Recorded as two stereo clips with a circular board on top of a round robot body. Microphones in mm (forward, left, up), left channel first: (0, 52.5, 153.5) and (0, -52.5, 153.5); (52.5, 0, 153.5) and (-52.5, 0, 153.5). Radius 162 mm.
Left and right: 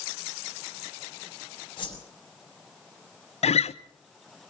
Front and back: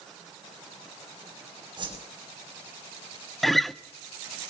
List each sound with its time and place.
1.8 s a whoosh: 130° left, 5 m
3.4 s a guitar: 90° left, 0.9 m